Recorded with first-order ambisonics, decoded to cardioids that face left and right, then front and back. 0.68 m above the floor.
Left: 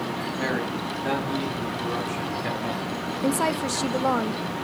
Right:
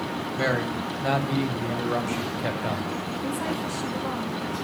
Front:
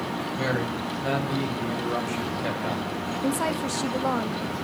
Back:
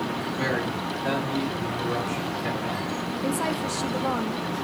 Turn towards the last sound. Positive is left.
turn(degrees=75)